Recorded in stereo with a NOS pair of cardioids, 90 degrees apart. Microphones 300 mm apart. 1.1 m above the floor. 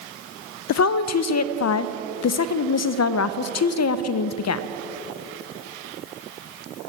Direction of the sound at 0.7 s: 60° left.